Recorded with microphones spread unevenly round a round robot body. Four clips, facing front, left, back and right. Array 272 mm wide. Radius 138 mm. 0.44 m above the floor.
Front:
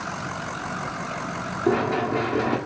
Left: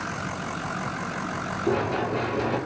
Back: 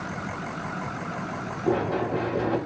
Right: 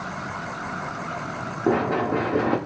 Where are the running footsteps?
55° right, 2 m.